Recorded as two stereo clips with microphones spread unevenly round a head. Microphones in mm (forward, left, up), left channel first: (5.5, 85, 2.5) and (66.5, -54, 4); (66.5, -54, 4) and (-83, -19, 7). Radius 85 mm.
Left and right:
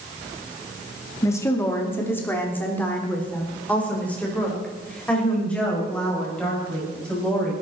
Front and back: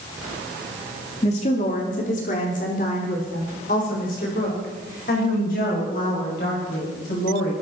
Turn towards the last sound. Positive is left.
turn(degrees=30)